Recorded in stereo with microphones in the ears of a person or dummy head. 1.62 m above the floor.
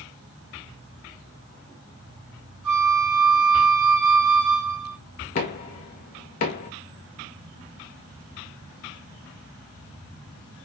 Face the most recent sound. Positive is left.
turn(degrees=45)  # may be behind; listen again after turning